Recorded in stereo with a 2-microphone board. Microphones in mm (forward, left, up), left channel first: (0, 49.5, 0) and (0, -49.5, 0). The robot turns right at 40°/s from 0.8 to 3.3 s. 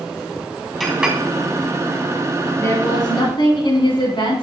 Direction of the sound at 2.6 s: 25° left (ahead or behind).